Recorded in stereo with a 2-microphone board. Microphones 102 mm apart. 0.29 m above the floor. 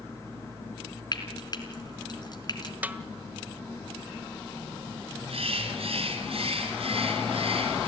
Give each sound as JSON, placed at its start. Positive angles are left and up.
{"t": 1.1, "sound": "frying", "side_deg": 40, "distance_m": 3.5}
{"t": 2.8, "sound": "a snare drum", "side_deg": -15, "distance_m": 1.3}
{"t": 5.3, "sound": "a bird", "side_deg": -70, "distance_m": 3.5}